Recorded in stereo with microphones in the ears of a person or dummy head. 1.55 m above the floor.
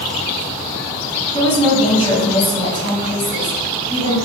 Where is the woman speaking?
30° left (ahead or behind), 1.4 m.